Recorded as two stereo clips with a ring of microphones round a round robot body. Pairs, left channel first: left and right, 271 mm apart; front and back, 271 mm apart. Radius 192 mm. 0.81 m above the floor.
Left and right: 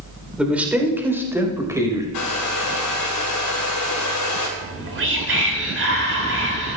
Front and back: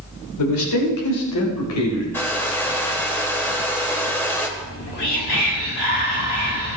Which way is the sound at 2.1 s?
80° left.